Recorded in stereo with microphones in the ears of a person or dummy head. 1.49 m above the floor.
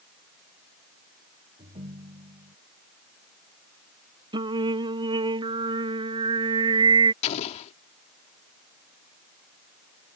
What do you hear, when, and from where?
1.6 s a ringtone: 40° right (ahead or behind)
4.3 s singing: 35° right (ahead or behind)
7.2 s an explosion: 45° left (ahead or behind)